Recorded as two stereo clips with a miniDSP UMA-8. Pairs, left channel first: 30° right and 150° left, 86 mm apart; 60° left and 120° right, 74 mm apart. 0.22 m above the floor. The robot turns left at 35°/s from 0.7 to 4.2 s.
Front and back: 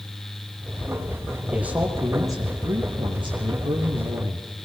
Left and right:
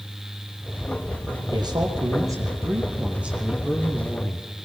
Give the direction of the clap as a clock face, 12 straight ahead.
I don't hear a clap.